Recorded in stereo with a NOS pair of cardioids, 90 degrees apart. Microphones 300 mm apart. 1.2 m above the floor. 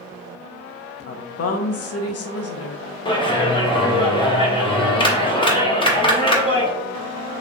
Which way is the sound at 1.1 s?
55° left.